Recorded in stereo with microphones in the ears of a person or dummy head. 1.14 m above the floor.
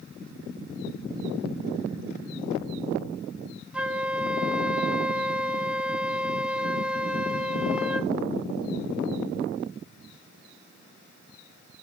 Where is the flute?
10° right (ahead or behind), 1.1 m.